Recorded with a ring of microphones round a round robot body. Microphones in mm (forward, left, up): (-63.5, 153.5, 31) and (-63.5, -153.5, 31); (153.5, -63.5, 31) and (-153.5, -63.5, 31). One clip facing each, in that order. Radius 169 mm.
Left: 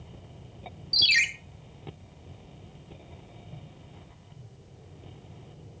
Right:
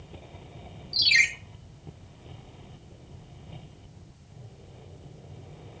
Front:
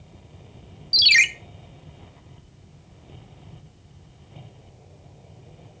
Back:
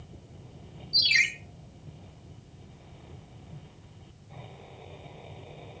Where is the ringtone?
25° left, 1.1 m.